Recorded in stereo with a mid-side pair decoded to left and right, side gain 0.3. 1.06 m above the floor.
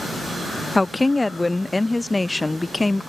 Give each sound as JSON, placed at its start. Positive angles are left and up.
{"t": 0.8, "sound": "a woman speaking", "azimuth_deg": 25}